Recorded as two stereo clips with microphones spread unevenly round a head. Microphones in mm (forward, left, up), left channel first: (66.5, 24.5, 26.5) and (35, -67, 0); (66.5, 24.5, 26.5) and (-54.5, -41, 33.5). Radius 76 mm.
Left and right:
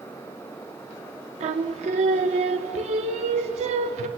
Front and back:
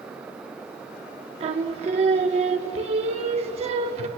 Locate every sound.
1.4 s singing: 105° right, 0.7 m